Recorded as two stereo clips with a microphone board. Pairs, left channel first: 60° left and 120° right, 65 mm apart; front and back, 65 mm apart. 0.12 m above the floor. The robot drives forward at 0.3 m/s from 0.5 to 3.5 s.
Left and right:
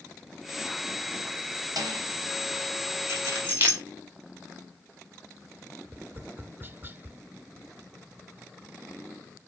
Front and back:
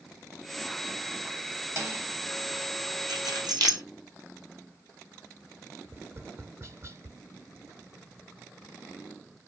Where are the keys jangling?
175° right, 3.5 m.